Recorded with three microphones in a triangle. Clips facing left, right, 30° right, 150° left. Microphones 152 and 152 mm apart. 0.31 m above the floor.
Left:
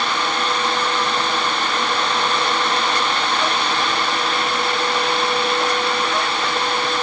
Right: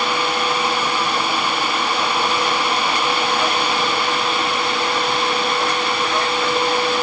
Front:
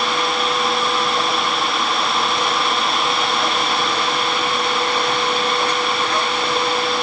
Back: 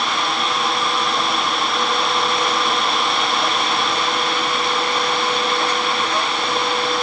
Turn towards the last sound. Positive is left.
No sound to turn to.